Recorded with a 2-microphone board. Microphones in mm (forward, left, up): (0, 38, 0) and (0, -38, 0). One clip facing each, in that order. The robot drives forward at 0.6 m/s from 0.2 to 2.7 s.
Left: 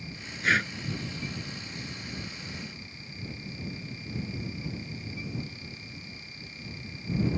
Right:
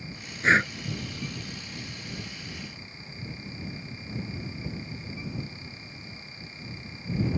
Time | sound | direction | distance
0.4 | breathing | 30° right (ahead or behind) | ?